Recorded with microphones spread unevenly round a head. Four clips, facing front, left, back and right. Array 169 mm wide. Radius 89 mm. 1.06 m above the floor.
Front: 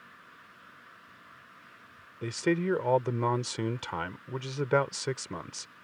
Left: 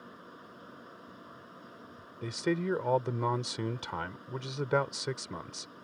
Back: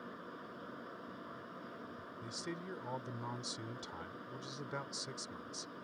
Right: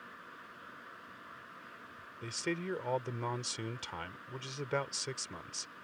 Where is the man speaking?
20° left.